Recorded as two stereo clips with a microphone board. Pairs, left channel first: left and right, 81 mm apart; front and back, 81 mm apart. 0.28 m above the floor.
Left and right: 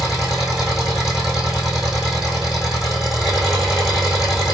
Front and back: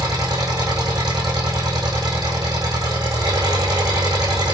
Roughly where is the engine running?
Behind.